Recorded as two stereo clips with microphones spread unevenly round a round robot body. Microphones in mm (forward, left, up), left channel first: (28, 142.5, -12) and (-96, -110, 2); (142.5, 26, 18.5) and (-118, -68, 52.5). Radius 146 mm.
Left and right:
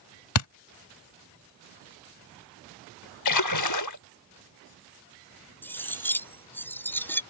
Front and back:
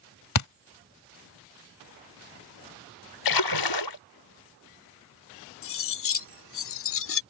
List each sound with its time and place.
0.3 s a thud: 45° left
3.2 s a splash: 35° left
5.6 s cutlery clinking: 20° right